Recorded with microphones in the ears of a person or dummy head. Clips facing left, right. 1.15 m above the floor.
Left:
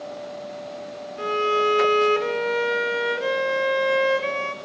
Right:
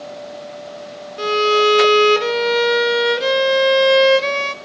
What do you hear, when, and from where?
1.2 s a violin: 50° right (ahead or behind), 0.5 m